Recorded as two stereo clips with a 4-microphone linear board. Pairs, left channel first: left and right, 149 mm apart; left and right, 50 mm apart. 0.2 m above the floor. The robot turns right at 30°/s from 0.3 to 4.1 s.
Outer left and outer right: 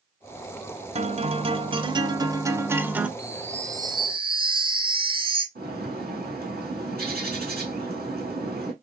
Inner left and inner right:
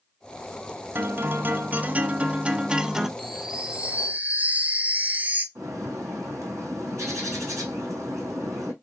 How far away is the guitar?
About 0.6 m.